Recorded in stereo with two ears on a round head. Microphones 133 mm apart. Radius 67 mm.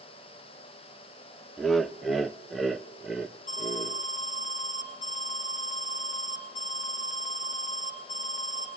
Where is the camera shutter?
I don't hear a camera shutter.